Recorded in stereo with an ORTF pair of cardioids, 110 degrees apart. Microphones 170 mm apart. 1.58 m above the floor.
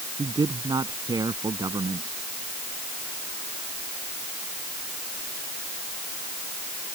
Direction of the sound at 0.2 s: 25° right.